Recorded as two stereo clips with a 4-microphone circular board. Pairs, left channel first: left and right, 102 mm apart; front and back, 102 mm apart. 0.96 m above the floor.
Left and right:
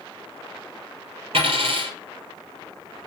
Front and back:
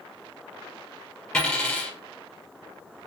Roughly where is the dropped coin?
Right.